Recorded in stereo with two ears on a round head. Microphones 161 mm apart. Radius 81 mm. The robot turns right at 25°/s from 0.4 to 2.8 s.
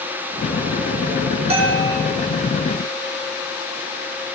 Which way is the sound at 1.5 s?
35° right (ahead or behind).